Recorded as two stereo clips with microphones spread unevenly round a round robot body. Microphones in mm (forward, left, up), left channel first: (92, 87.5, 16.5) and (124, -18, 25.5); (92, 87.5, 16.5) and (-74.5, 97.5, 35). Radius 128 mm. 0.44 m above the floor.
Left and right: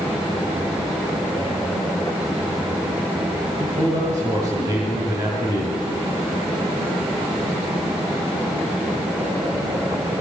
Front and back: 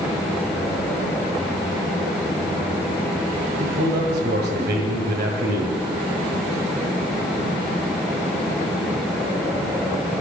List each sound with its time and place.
3.6 s a man speaking: 145° right, 2 m